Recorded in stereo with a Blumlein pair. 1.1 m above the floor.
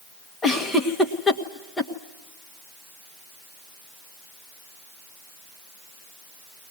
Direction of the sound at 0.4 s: 10° left.